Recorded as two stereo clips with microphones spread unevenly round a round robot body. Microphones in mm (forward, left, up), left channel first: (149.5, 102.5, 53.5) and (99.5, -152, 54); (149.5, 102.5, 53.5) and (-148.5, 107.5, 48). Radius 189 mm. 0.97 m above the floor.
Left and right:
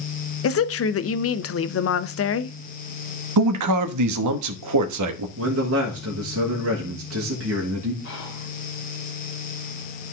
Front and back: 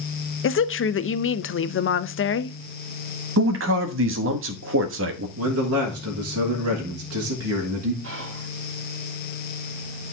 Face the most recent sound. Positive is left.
turn(degrees=135)